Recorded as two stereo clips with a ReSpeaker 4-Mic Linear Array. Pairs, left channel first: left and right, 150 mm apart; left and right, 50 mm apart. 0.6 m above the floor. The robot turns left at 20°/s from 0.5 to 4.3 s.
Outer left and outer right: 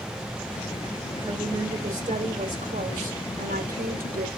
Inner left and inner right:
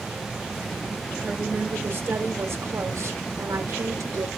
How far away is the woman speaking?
About 3 m.